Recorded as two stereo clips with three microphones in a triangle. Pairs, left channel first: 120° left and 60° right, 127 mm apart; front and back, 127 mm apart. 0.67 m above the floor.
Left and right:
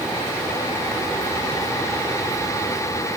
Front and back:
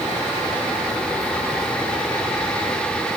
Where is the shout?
I don't hear a shout.